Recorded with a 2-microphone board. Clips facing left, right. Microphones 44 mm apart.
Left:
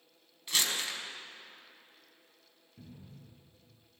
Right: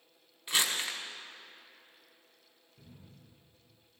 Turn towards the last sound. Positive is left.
turn(degrees=55)  # may be behind; listen again after turning